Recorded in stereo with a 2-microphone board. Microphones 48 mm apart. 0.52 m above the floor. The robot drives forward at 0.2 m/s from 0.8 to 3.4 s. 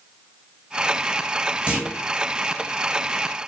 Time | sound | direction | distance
1.7 | a clunk | 25° right (ahead or behind) | 1.7 m